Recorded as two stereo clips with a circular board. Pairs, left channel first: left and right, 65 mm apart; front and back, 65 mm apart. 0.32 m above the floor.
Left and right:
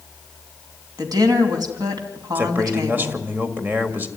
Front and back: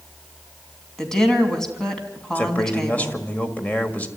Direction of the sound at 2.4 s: 50° right.